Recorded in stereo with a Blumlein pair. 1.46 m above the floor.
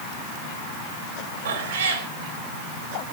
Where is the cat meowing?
55° right, 2.5 m.